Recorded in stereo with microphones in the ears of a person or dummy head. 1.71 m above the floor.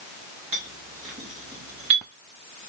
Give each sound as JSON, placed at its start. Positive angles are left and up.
{"t": 0.5, "sound": "a clink", "side_deg": -30, "distance_m": 1.3}